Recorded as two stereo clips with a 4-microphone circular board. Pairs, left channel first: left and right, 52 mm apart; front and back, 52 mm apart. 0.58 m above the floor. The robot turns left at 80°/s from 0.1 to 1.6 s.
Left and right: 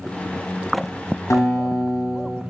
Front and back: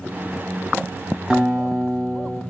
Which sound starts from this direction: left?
A guitar, at 1.3 s.